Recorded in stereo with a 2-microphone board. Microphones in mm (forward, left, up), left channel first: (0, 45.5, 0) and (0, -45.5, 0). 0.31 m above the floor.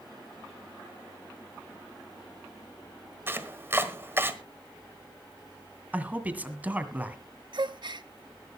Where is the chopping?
25° right (ahead or behind), 1.3 m.